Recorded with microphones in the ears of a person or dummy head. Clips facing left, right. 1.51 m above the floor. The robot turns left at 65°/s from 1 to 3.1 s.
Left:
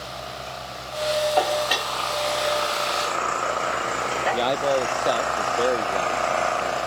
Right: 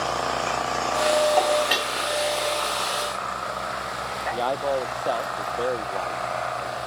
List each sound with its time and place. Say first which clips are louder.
0.0 s an engine running: right 9 dB; 95° right; by 6.9 s 130° left
1.4 s dishes clattering: right 1 dB; 15° left; by 1.9 s 20° right
4.3 s a man speaking: left 2 dB; 25° left (ahead or behind)